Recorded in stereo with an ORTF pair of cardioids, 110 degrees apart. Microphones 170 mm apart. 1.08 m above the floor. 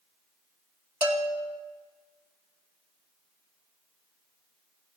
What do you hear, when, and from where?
1.0 s a bell: 30° right, 2 m